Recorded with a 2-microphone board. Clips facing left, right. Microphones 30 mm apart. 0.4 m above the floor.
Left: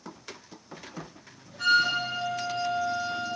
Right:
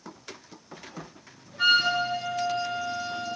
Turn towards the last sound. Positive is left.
turn(degrees=-30)  # may be behind; listen again after turning